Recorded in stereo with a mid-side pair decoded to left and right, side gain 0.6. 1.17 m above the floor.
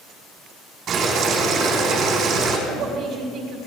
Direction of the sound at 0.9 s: 55° right.